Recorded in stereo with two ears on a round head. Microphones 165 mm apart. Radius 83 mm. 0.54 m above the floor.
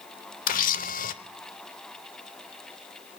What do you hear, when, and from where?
0.5 s a camera shutter: 50° left (ahead or behind), 0.8 m